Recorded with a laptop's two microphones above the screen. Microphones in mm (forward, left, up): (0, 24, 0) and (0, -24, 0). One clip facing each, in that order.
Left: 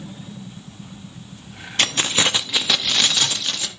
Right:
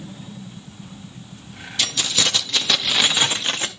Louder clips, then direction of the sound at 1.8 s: Left 3 dB; 45° left (ahead or behind).